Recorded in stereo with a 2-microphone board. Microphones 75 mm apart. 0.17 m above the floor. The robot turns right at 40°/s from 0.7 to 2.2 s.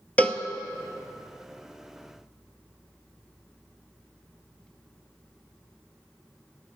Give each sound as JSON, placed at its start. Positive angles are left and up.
{"t": 0.2, "sound": "a cowbell", "side_deg": 20, "distance_m": 0.6}